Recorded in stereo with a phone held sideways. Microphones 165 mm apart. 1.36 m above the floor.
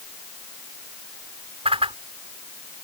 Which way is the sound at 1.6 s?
40° right (ahead or behind).